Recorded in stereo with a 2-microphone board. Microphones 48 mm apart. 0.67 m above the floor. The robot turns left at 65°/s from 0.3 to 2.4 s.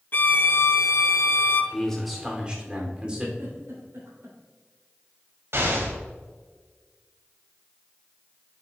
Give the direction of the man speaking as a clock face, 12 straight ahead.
11 o'clock.